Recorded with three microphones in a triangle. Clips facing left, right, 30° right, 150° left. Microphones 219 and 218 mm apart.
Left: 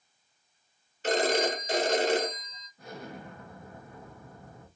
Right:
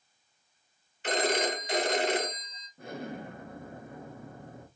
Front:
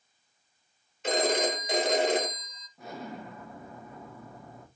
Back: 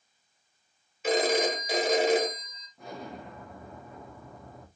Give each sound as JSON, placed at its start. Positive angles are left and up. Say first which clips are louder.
{"t": 1.0, "sound": "a phone ringing", "louder": "left 3 dB, back 2 dB", "azimuth_deg": 65, "distance_m": 1.4}
{"t": 2.8, "sound": "an explosion", "louder": "right 4 dB, front 1 dB", "azimuth_deg": -115, "distance_m": 1.4}